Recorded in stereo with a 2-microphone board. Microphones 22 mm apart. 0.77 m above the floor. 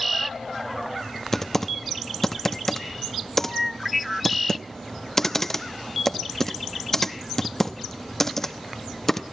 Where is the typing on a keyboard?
20° left (ahead or behind), 0.8 m.